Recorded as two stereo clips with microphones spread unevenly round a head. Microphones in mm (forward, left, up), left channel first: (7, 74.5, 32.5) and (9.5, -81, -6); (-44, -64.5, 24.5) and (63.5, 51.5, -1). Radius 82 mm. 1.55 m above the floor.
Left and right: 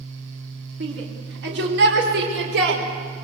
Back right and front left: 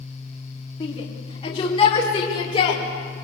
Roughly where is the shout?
Right.